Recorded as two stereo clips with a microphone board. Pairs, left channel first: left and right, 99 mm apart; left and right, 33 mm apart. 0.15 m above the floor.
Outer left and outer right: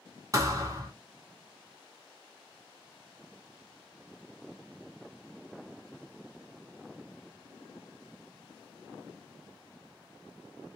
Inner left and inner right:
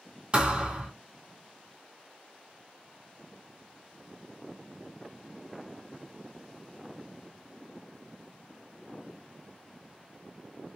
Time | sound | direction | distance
0.3 | a thud | 35° right (ahead or behind) | 1.4 m